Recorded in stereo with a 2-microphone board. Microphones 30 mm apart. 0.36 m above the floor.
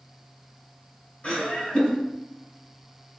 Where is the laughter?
45° left (ahead or behind), 1.6 m.